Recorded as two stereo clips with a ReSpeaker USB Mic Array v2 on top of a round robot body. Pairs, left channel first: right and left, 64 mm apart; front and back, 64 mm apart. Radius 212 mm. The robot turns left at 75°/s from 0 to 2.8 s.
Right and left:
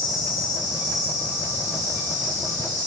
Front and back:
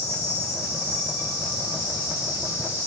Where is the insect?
140° left, 1.2 m; by 2.9 s 70° right, 1.2 m.